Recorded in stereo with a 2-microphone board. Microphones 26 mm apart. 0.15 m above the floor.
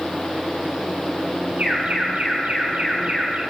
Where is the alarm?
70° right (ahead or behind), 4.5 m.